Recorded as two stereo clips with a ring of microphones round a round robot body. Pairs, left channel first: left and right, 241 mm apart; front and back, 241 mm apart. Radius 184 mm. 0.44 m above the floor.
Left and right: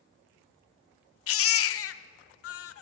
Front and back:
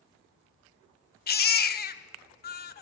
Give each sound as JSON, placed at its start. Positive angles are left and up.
{"t": 1.3, "sound": "a baby crying", "azimuth_deg": 55, "distance_m": 0.6}